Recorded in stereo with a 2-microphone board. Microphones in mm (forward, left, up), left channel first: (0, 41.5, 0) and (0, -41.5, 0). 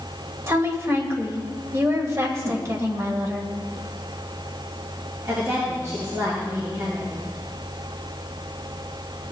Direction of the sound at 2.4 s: 45° right (ahead or behind).